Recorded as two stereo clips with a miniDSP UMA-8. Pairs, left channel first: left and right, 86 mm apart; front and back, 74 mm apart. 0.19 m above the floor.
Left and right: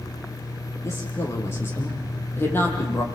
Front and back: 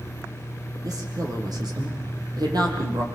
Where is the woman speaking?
150° left, 6.5 m; by 3.0 s 155° left, 7.5 m.